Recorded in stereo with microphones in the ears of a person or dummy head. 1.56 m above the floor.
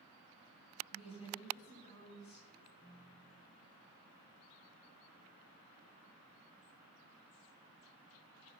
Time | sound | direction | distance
0.9 | a woman speaking | 35° left (ahead or behind) | 7 m
2.6 | a ringtone | 15° left (ahead or behind) | 1.4 m